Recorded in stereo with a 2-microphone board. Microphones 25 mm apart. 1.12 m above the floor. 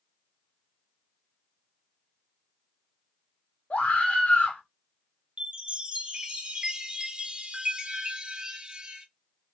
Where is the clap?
I don't hear a clap.